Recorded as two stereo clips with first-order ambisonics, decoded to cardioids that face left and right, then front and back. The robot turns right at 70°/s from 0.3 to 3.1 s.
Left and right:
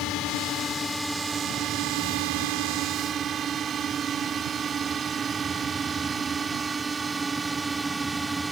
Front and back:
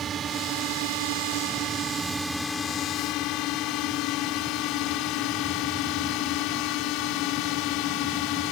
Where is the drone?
120° left; by 8.5 s 10° right.